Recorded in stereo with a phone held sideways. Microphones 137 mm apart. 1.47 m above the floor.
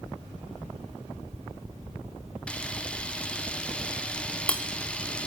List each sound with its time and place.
2.5 s a camera shutter: 10° left (ahead or behind), 1.1 m